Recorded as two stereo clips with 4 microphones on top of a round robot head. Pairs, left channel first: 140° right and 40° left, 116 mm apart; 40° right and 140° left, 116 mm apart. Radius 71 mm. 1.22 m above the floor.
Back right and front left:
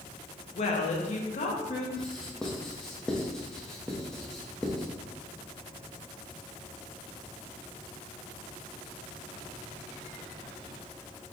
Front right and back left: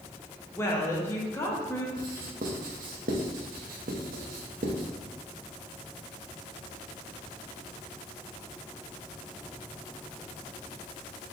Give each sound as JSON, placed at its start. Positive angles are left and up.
{"t": 0.6, "sound": "a woman speaking", "azimuth_deg": -110, "distance_m": 1.0}
{"t": 2.0, "sound": "writing", "azimuth_deg": 135, "distance_m": 0.7}